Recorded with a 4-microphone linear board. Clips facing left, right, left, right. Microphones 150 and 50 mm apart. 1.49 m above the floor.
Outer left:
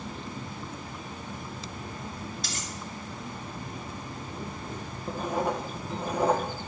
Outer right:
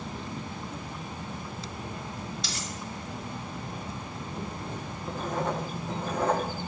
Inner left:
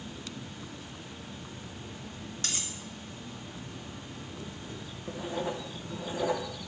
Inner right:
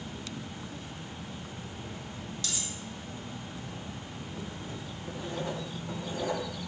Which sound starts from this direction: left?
Cutlery clinking, at 2.4 s.